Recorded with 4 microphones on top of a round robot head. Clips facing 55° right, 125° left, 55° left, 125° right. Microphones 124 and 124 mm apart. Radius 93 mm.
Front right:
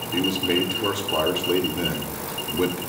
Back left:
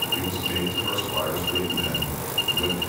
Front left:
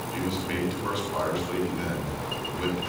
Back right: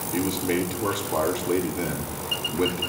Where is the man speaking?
80° right, 5.5 m.